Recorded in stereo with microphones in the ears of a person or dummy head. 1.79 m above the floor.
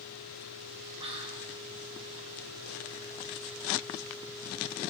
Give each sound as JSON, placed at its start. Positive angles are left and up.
{"t": 1.0, "sound": "whispering", "side_deg": -30, "distance_m": 1.3}